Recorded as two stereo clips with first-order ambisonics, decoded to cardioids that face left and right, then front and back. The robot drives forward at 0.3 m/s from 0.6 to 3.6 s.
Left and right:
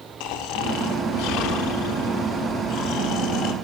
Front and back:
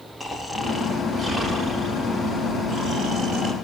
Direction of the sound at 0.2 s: 95° left.